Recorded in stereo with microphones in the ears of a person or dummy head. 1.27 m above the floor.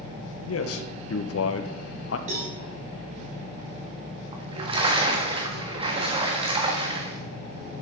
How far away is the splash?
About 1.4 m.